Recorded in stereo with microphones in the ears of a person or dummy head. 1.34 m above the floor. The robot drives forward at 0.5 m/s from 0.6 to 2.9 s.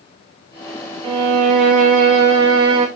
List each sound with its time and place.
1.0 s a violin: 25° right (ahead or behind), 0.8 m; by 2.9 s 20° right (ahead or behind), 1.0 m